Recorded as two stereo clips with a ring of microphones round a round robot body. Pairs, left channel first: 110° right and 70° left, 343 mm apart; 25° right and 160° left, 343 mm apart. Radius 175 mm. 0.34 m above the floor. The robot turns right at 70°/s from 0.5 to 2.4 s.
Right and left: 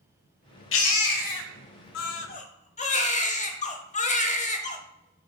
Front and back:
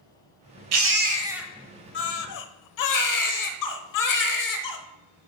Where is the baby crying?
165° right, 0.8 m; by 4.8 s 45° right, 0.8 m.